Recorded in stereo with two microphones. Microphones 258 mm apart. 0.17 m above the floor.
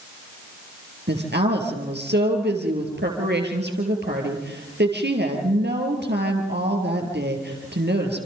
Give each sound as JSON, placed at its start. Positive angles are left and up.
{"t": 1.1, "sound": "a woman speaking", "side_deg": -40, "distance_m": 4.5}